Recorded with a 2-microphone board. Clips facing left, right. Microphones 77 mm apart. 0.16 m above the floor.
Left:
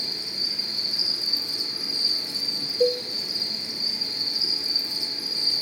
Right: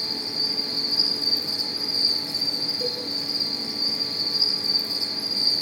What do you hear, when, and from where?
0.0 s an insect: 65° left (ahead or behind), 4.5 m
2.8 s a cowbell: 55° left (ahead or behind), 1.5 m